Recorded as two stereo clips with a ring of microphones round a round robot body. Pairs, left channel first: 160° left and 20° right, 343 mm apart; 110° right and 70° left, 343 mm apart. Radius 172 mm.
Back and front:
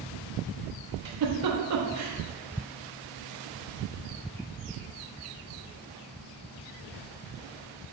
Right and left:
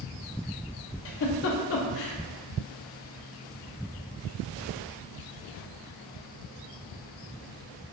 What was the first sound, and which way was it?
A giggle, 60° right.